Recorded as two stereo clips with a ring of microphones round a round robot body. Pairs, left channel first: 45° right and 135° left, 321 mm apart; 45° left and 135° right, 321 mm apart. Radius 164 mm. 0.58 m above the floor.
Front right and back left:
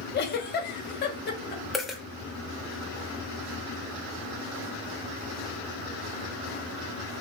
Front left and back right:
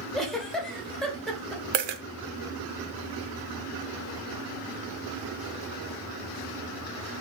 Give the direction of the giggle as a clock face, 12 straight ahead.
1 o'clock.